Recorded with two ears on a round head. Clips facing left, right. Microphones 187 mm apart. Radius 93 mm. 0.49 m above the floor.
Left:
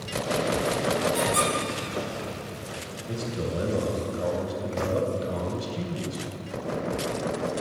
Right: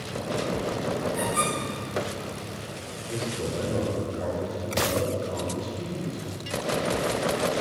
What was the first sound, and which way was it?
A squeak, 50° left (ahead or behind).